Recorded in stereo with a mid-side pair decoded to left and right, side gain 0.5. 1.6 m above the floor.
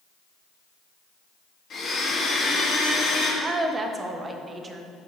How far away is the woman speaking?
About 1.1 m.